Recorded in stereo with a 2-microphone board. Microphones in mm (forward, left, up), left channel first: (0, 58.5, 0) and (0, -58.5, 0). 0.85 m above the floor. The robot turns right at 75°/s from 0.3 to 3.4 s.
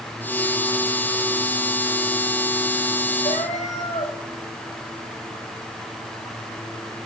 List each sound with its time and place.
3.2 s a cat meowing: 85° left, 2 m; by 4.1 s 75° left (ahead or behind), 2 m